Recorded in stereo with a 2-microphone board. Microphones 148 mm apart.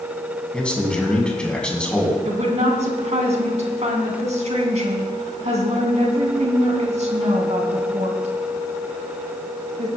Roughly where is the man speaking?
Centre.